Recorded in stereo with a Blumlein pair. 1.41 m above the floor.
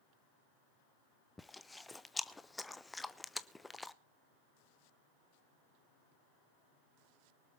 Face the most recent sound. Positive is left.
turn(degrees=5)